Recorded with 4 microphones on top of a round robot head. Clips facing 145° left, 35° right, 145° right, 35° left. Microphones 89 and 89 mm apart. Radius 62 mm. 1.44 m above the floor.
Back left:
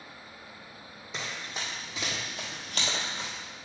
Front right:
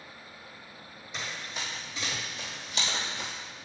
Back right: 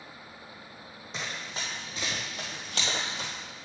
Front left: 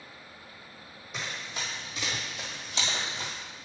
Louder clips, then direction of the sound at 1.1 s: Back left 1 dB, even; 150° left.